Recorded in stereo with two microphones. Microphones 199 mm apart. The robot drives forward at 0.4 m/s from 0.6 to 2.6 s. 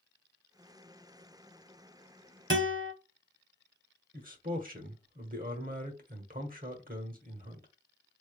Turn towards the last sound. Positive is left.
turn(degrees=-45)  # may be behind; listen again after turning